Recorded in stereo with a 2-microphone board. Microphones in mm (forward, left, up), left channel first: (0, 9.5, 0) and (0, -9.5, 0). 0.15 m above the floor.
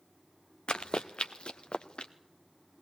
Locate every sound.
0.7 s running footsteps: 80° left, 0.8 m